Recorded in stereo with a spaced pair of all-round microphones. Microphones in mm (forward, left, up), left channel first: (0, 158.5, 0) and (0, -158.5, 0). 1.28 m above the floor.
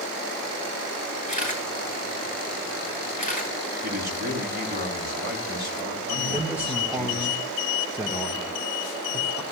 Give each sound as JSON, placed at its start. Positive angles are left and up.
{"t": 1.3, "sound": "a camera shutter", "side_deg": 25, "distance_m": 9.5}
{"t": 3.8, "sound": "a man speaking", "side_deg": -30, "distance_m": 3.0}
{"t": 6.3, "sound": "a man speaking", "side_deg": -5, "distance_m": 1.6}